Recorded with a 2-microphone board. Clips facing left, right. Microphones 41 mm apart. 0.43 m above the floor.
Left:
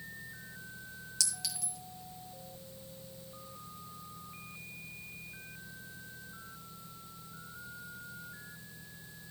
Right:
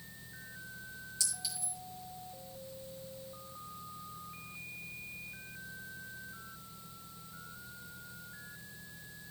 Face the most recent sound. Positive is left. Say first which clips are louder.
# left 4 dB
turn(degrees=70)  # may be behind; listen again after turning